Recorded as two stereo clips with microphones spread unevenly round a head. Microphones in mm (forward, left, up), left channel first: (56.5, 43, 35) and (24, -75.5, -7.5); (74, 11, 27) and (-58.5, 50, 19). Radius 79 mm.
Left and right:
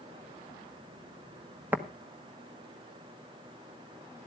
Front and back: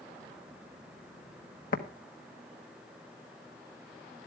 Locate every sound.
1.7 s tapping: 40° right, 1.4 m